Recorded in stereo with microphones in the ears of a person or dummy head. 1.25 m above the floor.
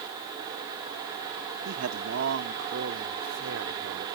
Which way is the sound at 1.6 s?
75° right (ahead or behind).